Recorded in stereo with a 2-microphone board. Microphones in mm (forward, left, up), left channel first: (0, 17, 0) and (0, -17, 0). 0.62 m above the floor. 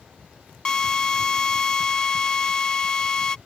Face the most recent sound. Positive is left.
turn(degrees=20)  # may be behind; listen again after turning